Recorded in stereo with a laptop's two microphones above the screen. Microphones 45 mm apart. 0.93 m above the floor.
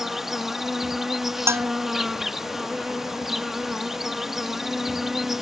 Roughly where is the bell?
Right.